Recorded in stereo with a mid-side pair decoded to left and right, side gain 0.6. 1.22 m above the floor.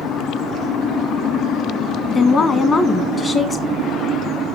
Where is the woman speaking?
35° left, 1.3 m.